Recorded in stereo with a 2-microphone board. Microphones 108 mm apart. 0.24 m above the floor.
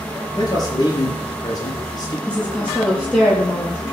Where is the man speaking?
35° left (ahead or behind), 6 m.